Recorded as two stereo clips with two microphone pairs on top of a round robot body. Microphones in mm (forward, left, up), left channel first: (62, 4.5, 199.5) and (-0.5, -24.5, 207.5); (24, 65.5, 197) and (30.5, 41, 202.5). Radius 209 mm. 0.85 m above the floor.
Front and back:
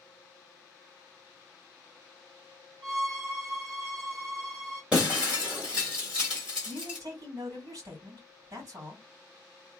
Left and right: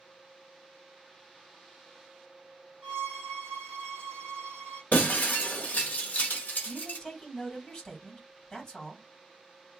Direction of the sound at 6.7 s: 160° left.